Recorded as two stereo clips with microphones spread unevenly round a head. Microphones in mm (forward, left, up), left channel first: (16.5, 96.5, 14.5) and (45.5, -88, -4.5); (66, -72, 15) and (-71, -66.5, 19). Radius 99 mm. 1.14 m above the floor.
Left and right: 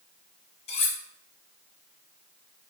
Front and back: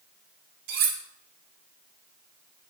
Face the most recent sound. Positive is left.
turn(degrees=155)